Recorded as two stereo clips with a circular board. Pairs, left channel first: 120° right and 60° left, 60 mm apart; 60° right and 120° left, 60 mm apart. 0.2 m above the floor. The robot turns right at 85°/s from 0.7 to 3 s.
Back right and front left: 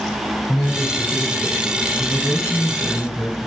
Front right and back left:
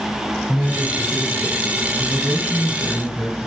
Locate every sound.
0.5 s a man speaking: 125° right, 1.4 m; by 3.4 s 70° left, 1.4 m